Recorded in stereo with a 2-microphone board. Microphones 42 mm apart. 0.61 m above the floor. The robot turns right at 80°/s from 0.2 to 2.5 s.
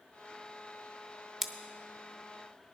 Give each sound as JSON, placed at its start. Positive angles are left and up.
{"t": 1.4, "sound": "scissors", "side_deg": -5, "distance_m": 0.7}